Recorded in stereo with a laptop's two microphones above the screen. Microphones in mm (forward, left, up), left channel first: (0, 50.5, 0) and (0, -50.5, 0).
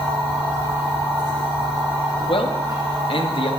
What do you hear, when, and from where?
0.0 s a machine running: 40° right (ahead or behind), 2.5 m
2.3 s a man speaking: 60° left (ahead or behind), 0.9 m